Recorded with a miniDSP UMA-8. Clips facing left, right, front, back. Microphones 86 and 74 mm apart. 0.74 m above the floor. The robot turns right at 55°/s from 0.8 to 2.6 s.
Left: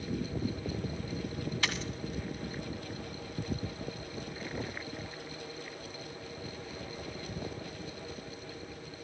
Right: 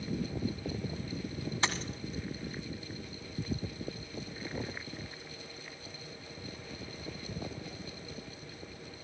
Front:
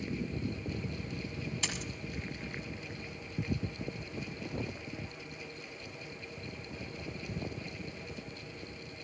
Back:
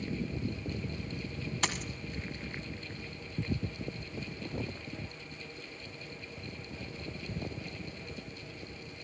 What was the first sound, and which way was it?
A dropped coin, 150° right.